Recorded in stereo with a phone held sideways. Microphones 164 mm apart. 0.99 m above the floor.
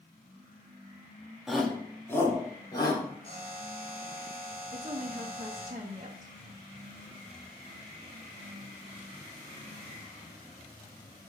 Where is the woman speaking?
40° right (ahead or behind), 1.0 m.